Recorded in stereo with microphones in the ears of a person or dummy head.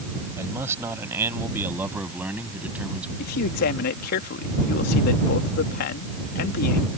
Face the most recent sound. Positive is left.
turn(degrees=60)  # may be behind; listen again after turning